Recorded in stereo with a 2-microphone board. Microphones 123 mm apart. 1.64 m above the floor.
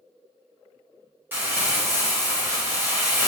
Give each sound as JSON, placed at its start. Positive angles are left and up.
{"t": 1.3, "sound": "crumpling", "side_deg": -15, "distance_m": 1.2}